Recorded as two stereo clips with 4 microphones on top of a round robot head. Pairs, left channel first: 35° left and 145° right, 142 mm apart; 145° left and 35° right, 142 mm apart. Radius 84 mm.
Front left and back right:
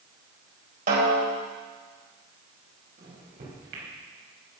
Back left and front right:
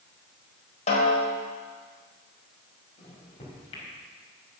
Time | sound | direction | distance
0.9 | a snare drum | 170° right | 4 m
3.0 | a microwave | 165° right | 5 m